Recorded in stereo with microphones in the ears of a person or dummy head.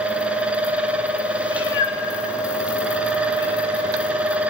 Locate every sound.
0.0 s a fan: 5° right (ahead or behind), 1.0 m
1.5 s a cat meowing: 15° left (ahead or behind), 0.9 m